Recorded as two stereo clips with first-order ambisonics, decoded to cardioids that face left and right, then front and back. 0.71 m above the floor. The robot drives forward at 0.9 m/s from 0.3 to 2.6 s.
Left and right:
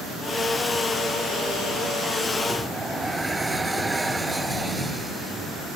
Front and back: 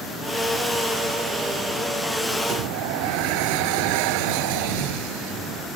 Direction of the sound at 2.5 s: 175° right.